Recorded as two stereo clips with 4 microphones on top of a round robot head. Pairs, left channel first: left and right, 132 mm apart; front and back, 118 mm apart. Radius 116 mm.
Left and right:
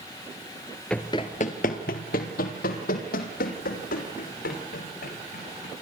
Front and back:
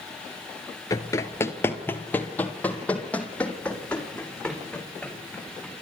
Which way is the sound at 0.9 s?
10° left.